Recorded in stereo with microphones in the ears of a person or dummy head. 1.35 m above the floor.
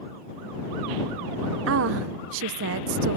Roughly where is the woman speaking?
Right.